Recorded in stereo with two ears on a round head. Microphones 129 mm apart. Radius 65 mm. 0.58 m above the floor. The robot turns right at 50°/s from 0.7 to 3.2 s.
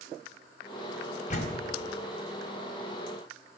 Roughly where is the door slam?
Left.